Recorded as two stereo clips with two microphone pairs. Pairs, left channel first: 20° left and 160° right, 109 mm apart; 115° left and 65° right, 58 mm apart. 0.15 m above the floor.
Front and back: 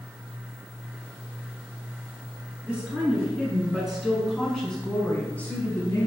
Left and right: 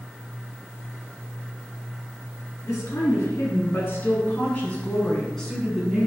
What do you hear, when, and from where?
2.6 s a woman speaking: 125° left, 1.9 m; by 6.1 s 10° left, 1.2 m